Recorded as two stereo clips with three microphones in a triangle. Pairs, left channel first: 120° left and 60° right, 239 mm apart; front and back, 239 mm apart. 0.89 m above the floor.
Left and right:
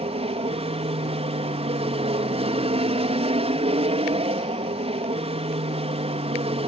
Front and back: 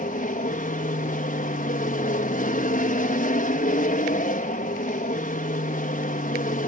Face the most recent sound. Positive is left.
turn(degrees=-15)